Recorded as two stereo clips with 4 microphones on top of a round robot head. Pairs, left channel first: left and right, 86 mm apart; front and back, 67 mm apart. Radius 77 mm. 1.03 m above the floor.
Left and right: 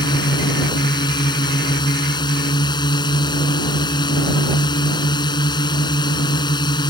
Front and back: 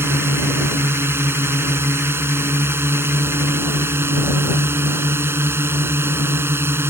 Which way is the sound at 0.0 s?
125° left.